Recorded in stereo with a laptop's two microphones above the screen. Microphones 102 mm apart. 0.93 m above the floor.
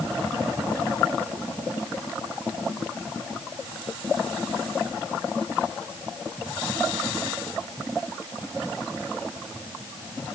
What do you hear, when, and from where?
Only background noise.